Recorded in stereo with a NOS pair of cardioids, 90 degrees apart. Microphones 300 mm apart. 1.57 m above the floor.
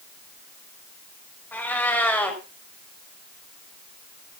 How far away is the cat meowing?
About 5 m.